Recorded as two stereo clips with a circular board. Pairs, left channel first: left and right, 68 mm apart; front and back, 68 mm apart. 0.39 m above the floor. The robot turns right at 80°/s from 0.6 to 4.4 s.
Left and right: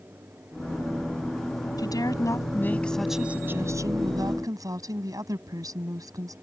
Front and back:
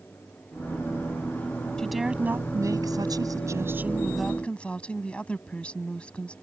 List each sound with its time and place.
1.8 s a woman speaking: 80° left; by 6.3 s 70° right